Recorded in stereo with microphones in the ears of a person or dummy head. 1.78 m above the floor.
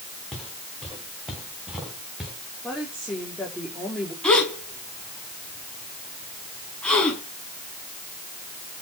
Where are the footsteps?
Centre (ahead or behind), 9 m; by 2.3 s 5° right (ahead or behind), 9.5 m.